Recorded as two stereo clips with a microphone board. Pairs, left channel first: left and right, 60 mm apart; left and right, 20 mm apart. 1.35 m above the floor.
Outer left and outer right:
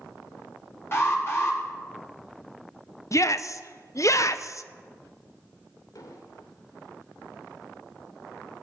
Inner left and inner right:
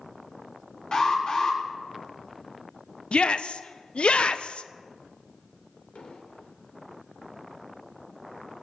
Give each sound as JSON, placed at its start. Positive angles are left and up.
{"t": 0.9, "sound": "an alarm", "side_deg": 45, "distance_m": 4.5}
{"t": 3.1, "sound": "a shout", "side_deg": 60, "distance_m": 0.9}
{"t": 6.0, "sound": "an explosion", "side_deg": 75, "distance_m": 2.5}